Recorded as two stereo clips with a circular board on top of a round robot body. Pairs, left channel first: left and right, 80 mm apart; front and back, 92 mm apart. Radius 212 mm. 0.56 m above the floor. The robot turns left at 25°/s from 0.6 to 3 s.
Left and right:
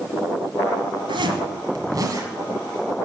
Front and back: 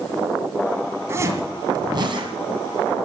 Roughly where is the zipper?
Behind right.